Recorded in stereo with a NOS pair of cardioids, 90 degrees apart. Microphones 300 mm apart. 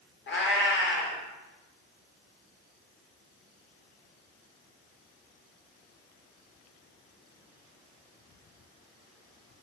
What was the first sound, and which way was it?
A cat meowing, 40° left.